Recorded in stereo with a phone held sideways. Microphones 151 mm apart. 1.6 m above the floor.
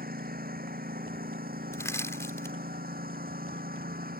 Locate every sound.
0.0 s a lawn mower: 85° right
1.7 s crushing: 20° left (ahead or behind)